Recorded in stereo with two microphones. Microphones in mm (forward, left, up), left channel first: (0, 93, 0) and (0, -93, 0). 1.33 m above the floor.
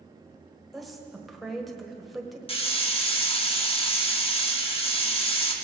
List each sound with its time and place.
0.7 s a woman speaking: centre (ahead or behind), 1.4 m
2.5 s a hiss: 30° left (ahead or behind), 1.1 m